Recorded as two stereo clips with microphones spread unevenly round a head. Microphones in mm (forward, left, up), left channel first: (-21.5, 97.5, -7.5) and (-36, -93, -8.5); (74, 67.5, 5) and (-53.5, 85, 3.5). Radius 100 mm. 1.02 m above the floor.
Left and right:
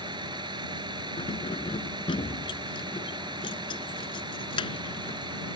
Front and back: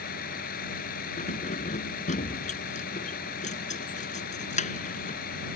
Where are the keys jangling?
15° left.